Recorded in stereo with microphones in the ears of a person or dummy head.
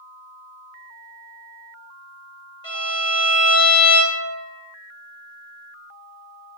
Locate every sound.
2.6 s a violin: 25° left (ahead or behind), 0.9 m